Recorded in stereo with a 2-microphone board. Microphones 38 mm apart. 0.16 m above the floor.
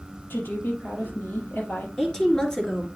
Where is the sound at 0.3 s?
70° left (ahead or behind), 4.5 m.